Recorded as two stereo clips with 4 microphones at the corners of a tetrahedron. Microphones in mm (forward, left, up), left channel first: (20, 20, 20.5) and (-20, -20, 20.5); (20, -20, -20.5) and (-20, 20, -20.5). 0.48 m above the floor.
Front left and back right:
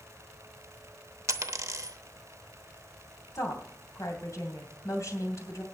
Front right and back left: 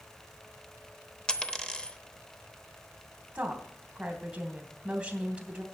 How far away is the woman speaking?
About 2.5 m.